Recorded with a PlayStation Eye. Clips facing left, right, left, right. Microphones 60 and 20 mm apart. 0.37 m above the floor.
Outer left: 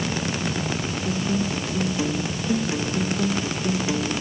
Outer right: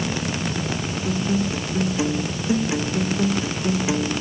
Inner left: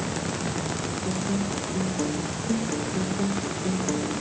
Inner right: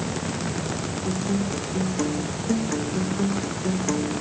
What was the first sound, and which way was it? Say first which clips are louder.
A guitar: outer right 2 dB, inner right 3 dB; 15° right (ahead or behind).